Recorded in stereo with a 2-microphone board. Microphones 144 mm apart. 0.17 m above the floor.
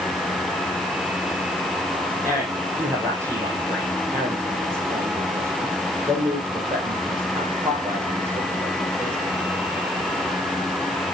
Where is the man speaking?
20° right (ahead or behind), 6.5 m.